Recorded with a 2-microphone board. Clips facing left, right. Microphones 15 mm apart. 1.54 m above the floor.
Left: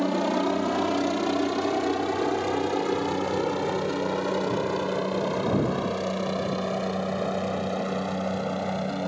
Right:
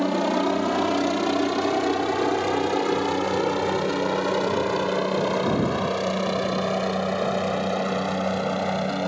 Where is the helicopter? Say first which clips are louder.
Right 2 dB; 5° right (ahead or behind); by 9.1 s 15° right (ahead or behind).